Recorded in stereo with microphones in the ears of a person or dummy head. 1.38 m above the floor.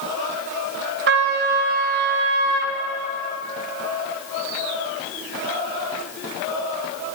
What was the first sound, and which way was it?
A trumpet, 55° right (ahead or behind).